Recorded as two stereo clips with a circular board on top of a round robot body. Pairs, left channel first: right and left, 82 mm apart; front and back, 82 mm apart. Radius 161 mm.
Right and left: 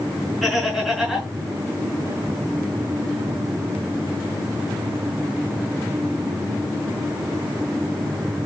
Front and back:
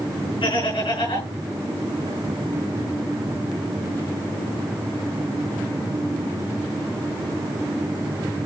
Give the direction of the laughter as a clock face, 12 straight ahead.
12 o'clock.